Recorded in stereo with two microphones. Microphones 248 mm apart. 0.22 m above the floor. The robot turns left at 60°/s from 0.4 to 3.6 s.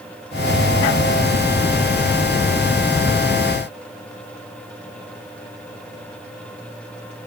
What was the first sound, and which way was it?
Only background noise.